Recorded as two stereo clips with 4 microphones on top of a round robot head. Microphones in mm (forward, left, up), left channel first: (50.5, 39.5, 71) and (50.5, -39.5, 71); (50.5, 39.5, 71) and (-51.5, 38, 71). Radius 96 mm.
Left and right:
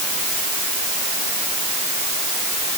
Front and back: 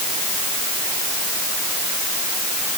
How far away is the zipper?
No zipper in this recording.